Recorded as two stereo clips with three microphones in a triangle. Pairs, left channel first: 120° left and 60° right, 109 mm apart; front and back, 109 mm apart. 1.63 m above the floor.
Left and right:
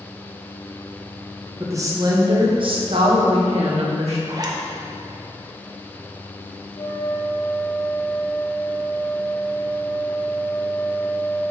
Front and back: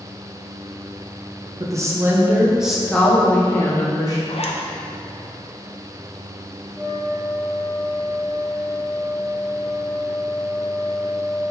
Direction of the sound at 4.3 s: 10° right.